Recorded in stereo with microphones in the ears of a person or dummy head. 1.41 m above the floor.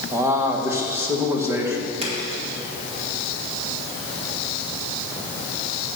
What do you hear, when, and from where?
0.1 s a man speaking: 10° right (ahead or behind), 1.2 m
2.0 s a splash: 30° right (ahead or behind), 1.7 m